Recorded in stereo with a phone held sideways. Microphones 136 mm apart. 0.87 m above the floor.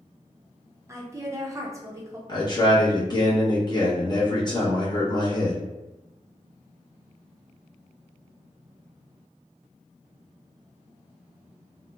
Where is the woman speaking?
25° right (ahead or behind), 0.6 m.